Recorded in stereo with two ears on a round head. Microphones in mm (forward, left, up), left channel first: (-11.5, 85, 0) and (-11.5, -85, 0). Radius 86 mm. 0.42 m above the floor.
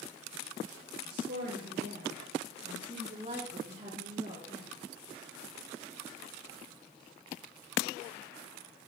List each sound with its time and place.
1.1 s a woman speaking: 60° right (ahead or behind), 2.5 m; by 4.7 s 30° right (ahead or behind), 6.5 m